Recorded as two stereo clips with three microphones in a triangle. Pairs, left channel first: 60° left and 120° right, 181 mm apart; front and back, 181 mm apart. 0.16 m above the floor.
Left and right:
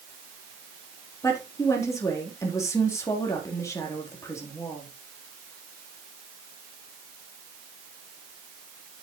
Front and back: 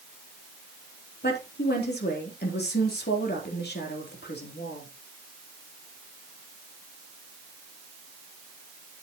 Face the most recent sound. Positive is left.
turn(degrees=-15)